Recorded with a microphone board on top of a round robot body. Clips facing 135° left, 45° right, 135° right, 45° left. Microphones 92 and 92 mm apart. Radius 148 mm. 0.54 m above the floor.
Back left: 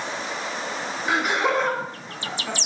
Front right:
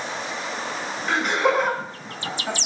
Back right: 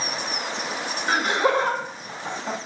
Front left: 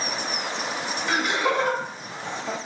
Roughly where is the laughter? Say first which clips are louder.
Front right 1 dB, back right 3 dB; behind right.